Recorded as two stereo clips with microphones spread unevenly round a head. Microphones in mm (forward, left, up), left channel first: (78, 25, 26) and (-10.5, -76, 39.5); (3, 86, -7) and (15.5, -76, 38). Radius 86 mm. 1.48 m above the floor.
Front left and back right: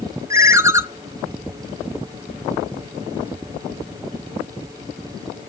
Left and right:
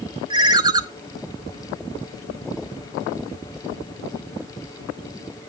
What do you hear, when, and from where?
0.3 s a ringtone: 85° right, 0.5 m